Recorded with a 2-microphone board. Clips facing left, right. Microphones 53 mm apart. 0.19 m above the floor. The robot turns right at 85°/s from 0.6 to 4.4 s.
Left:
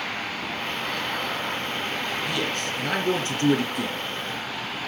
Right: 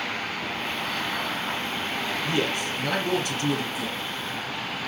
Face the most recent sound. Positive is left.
turn(degrees=140)